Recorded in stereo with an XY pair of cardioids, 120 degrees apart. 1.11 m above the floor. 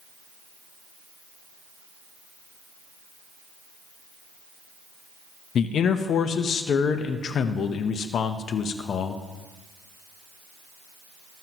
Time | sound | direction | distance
5.5 | a man speaking | 50° left | 0.9 m